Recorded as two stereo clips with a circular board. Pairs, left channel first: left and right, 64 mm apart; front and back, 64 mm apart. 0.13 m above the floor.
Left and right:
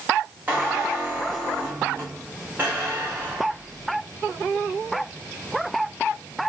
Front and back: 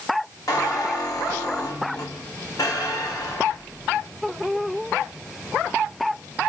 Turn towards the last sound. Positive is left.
turn(degrees=-25)